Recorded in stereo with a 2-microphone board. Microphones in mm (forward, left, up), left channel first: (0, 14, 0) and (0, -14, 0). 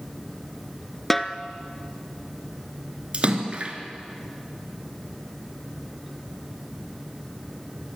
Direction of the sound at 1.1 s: 5° left (ahead or behind).